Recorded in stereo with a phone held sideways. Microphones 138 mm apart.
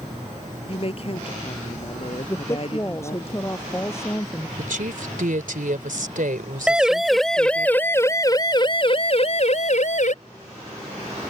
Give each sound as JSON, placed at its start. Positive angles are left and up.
{"t": 0.7, "sound": "a woman speaking", "side_deg": 45}
{"t": 2.3, "sound": "a woman speaking", "side_deg": 20}
{"t": 4.6, "sound": "a woman speaking", "side_deg": -75}
{"t": 6.7, "sound": "a siren", "side_deg": -5}